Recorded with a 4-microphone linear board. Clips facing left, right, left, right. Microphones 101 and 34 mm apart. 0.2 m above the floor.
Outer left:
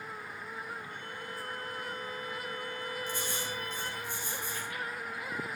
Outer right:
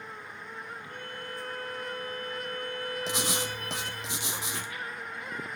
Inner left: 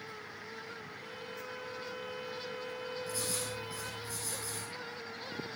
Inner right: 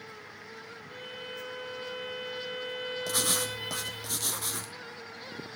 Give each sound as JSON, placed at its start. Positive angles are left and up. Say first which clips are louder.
{"t": 0.9, "sound": "a violin", "louder": "outer right 2 dB, inner right 4 dB", "side_deg": -50, "distance_m": 3.0}
{"t": 3.1, "sound": "writing", "louder": "outer right 5 dB, inner right 10 dB", "side_deg": -80, "distance_m": 1.8}